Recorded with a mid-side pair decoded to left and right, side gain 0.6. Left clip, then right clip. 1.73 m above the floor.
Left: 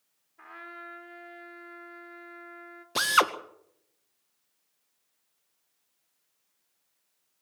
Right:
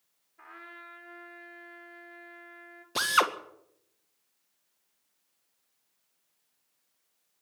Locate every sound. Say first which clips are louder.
0.4 s a trumpet: left 3 dB; 10° left, 3.5 m
3.0 s a drill: left 2 dB; 10° left, 1.8 m